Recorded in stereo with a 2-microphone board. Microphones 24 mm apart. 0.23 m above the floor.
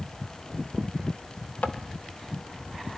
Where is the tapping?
75° left (ahead or behind), 1.3 m.